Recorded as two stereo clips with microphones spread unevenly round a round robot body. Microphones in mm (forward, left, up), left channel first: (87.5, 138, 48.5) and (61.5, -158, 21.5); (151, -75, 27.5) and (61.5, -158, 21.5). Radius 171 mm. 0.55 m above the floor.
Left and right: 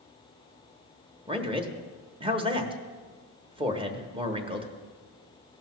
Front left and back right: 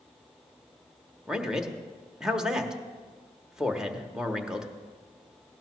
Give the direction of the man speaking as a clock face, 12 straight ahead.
2 o'clock.